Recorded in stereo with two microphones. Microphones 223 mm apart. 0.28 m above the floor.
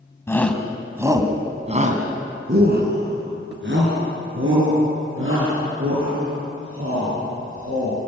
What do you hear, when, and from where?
0.3 s a shout: 10° left (ahead or behind), 2.0 m; by 8.0 s 75° right (ahead or behind), 8.5 m